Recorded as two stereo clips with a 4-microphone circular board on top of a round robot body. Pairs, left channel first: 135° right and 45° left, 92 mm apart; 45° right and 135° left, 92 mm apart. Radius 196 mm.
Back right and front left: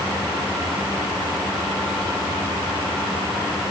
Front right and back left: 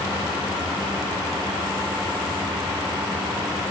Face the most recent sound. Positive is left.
No sound to turn to.